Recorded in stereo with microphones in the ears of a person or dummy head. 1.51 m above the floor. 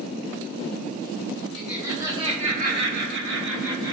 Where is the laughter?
5° right (ahead or behind), 0.8 m; by 3.9 s 85° right, 1.1 m.